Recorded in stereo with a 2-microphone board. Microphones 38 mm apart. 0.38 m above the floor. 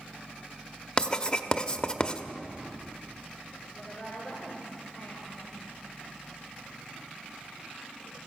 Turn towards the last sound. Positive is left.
turn(degrees=25)  # may be behind; listen again after turning